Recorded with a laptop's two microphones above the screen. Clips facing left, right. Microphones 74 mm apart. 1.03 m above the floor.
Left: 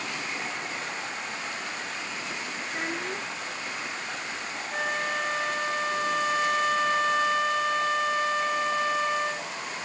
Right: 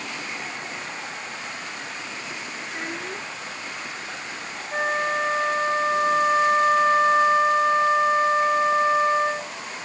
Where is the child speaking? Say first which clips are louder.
Even; centre (ahead or behind).